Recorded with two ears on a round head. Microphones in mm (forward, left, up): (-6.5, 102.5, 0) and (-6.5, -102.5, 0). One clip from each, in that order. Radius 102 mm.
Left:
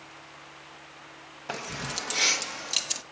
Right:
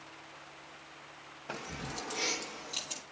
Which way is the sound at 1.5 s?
30° left (ahead or behind).